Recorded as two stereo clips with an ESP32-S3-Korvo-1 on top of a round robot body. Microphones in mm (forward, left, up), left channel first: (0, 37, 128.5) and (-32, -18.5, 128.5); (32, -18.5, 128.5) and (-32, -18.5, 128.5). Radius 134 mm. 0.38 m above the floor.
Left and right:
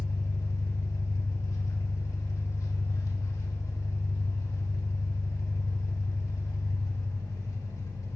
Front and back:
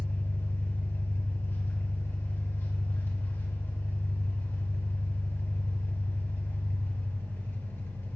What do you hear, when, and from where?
0.0 s an engine running: 45° left, 2.5 m